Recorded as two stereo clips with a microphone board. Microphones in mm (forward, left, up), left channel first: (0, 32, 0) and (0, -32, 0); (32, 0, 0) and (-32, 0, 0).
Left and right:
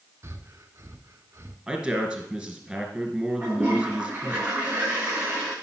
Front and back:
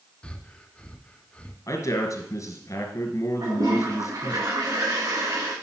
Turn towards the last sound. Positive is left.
turn(degrees=-155)